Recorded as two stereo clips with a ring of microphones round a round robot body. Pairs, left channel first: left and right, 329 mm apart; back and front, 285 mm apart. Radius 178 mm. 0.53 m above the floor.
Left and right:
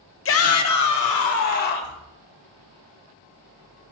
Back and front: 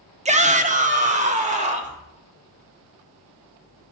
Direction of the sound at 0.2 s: 60° left.